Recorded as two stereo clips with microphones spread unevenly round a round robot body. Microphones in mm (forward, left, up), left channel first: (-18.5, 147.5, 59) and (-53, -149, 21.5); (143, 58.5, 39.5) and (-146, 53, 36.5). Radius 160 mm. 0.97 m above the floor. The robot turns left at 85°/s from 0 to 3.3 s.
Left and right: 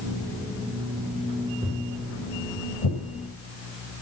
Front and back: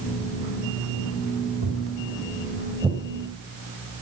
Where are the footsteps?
175° right, 5.5 m; by 3.0 s 85° left, 4 m.